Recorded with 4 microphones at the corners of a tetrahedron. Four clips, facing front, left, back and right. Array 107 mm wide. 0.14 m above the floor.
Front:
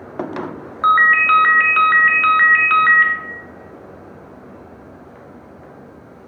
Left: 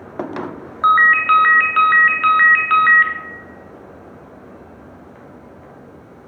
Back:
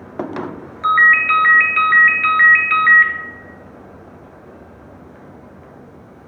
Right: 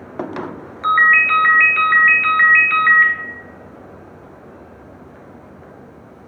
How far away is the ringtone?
About 0.5 m.